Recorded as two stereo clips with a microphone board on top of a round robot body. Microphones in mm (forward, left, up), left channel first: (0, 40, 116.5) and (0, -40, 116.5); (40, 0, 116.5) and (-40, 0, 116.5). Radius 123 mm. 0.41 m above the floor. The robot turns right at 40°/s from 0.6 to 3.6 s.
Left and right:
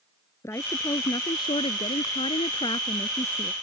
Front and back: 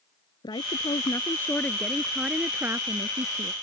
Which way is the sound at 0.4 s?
35° left.